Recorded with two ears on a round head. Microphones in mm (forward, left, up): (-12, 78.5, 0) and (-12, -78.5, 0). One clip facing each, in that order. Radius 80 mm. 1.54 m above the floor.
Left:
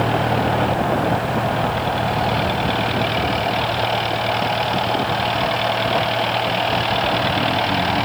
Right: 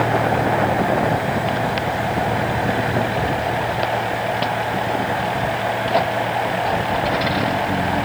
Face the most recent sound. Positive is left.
No sound to turn to.